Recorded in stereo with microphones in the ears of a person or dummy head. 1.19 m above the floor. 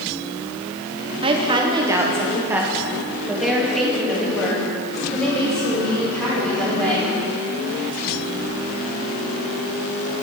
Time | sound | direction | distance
1.2 | a woman speaking | 30° right (ahead or behind) | 0.7 m